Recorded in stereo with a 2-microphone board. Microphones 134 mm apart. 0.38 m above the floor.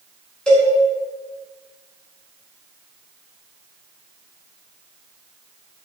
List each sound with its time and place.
0.5 s a cowbell: 5° left (ahead or behind), 4 m